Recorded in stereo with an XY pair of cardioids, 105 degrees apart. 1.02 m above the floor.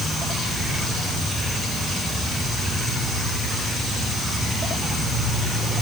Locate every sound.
Only background noise.